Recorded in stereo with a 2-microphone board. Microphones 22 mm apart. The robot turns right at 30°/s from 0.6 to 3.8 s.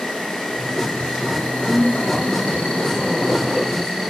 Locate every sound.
0.0 s an insect: 50° left, 6 m; by 4.1 s 145° left, 6 m
1.7 s a woman speaking: 25° right, 7 m; by 4.1 s 40° left, 7 m